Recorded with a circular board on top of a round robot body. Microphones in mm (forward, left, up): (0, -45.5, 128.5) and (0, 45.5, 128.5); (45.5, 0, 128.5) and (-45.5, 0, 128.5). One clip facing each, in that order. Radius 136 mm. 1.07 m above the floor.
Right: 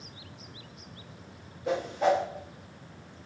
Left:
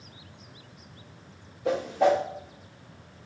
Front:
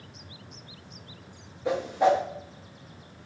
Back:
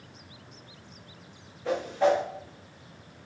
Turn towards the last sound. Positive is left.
turn(degrees=75)